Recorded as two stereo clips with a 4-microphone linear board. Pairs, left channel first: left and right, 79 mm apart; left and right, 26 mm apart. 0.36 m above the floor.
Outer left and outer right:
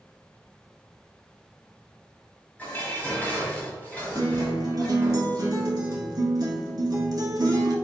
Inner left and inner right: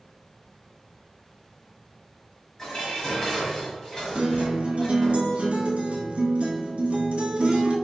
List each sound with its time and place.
2.6 s dishes clattering: 20° left (ahead or behind), 1.5 m
4.2 s a guitar: 55° right (ahead or behind), 0.9 m